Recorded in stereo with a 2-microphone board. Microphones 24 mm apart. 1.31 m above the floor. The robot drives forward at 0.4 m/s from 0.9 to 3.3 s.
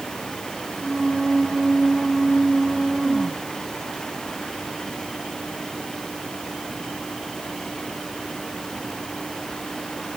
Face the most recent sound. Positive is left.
No sound to turn to.